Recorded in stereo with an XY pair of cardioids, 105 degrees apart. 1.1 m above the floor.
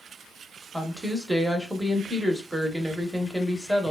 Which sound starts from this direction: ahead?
A woman speaking, at 0.7 s.